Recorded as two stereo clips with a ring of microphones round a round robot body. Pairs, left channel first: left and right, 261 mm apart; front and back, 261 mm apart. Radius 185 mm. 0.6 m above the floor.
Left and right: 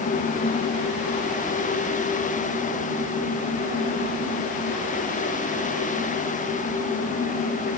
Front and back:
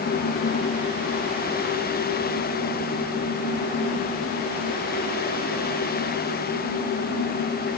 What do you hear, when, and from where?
Only background noise.